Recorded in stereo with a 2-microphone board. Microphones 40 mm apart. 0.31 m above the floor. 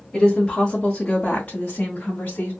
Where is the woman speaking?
15° left (ahead or behind), 1.2 m; by 2.5 s 40° left (ahead or behind), 1.4 m.